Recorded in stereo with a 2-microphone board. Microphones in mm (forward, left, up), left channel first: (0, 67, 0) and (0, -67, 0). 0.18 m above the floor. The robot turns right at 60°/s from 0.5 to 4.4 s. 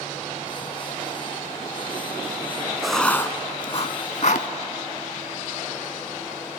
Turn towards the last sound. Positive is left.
turn(degrees=60)  # may be behind; listen again after turning